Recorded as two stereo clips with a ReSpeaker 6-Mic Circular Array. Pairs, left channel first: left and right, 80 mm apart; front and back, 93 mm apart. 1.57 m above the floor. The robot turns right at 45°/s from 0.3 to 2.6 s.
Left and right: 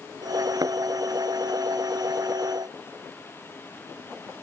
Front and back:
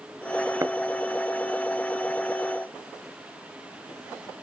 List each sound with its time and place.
0.6 s a thud: 125° right; by 0.8 s 115° right